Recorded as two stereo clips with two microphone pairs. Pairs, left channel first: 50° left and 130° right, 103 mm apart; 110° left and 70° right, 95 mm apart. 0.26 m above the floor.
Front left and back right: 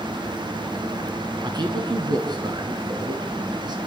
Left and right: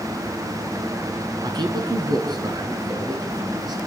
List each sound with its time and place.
1.4 s a man speaking: 100° right, 3 m